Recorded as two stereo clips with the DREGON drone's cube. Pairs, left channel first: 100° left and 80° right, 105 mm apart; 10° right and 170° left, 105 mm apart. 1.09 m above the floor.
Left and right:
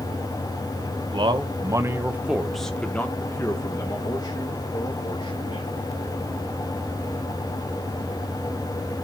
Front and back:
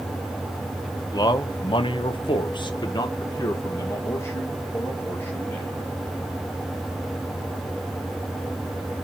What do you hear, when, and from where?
1.1 s a man speaking: 55° right, 0.9 m; by 5.8 s 60° left, 2 m